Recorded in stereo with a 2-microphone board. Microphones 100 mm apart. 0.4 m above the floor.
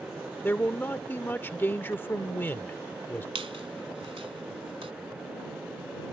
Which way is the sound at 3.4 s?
70° right (ahead or behind).